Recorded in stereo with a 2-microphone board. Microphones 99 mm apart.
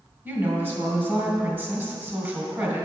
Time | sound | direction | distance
0.2 | a woman speaking | 25° right (ahead or behind) | 2.5 m